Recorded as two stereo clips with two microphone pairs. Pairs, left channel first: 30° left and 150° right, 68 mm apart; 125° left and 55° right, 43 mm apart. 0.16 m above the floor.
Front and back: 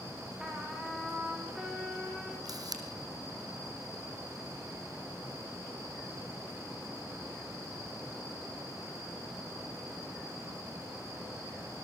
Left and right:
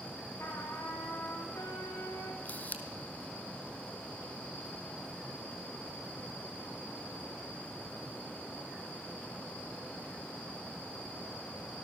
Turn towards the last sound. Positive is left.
turn(degrees=180)